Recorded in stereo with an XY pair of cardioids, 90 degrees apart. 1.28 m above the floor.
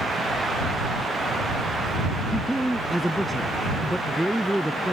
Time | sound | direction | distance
2.3 | a man speaking | 5° right | ?